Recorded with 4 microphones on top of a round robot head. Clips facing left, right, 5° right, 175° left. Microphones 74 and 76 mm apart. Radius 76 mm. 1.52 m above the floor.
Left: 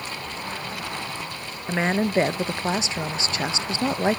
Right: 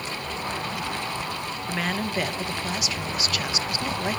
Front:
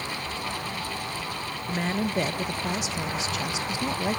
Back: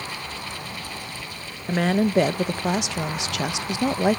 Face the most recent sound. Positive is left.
turn(degrees=155)